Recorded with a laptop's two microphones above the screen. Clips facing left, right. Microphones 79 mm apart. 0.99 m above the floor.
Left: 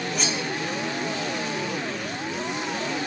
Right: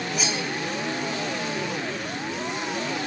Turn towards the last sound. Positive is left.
turn(degrees=-5)  # may be behind; listen again after turning